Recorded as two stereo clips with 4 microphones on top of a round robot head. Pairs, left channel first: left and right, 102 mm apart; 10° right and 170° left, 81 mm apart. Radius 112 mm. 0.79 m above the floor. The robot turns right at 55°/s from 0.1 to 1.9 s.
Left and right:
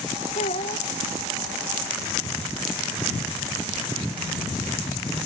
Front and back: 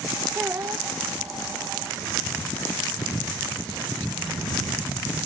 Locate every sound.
0.3 s a child speaking: 95° left; by 0.9 s 120° left